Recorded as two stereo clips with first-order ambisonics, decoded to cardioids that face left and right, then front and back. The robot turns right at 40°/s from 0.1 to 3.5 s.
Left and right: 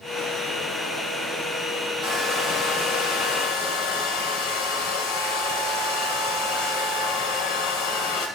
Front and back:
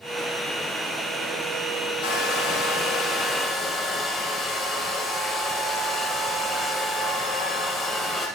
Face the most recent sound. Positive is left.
turn(degrees=85)